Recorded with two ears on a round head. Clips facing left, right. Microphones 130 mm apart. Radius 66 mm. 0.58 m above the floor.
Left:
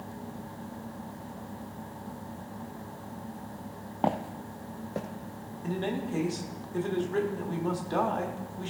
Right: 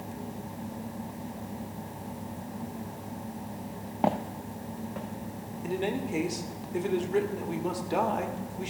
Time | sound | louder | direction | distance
4.0 | footsteps | right 1 dB | 5° right (ahead or behind) | 0.7 m
5.6 | a man speaking | right 1 dB | 15° right (ahead or behind) | 1.1 m